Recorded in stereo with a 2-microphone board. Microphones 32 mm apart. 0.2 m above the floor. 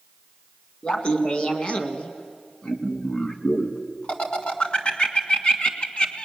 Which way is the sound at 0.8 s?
35° left (ahead or behind).